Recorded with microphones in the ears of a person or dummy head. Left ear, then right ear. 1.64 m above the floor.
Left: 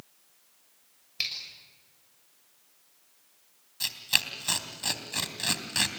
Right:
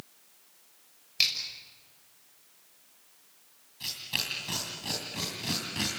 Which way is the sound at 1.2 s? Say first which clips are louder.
Right 5 dB; 5° left (ahead or behind).